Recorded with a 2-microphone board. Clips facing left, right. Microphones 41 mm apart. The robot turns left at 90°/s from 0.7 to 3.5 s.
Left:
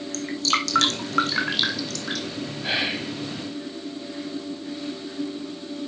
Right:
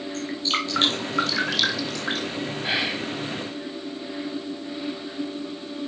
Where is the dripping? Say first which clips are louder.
Left 2 dB; 85° left, 2 m; by 2.3 s 45° right (ahead or behind), 2 m.